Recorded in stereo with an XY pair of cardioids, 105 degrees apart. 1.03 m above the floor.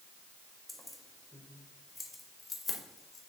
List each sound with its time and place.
0.7 s keys jangling: 5° left, 2.5 m; by 3.2 s 35° left, 2.5 m